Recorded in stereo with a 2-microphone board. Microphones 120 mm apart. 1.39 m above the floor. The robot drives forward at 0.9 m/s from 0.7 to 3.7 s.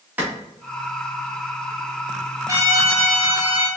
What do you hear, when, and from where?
0.2 s a clap: 15° right (ahead or behind), 1.9 m
2.5 s a trumpet: 30° right (ahead or behind), 1.2 m; by 3.7 s 15° right (ahead or behind), 2 m